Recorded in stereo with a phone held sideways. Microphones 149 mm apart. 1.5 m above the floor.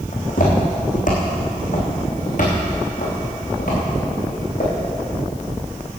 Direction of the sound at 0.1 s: 60° left (ahead or behind).